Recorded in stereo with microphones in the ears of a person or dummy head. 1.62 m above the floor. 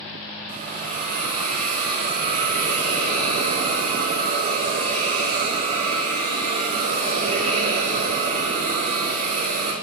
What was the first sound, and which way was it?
A hiss, 50° right (ahead or behind).